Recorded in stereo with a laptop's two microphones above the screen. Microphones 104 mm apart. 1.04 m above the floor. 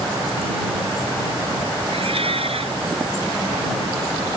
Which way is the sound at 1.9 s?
70° right (ahead or behind).